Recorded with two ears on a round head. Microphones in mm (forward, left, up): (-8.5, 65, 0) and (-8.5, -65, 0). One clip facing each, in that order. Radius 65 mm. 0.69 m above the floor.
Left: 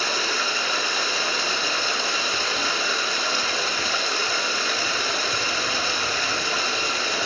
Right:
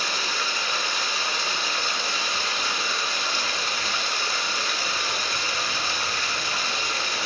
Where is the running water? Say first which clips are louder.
Left 3 dB; 65° left (ahead or behind), 1.0 m.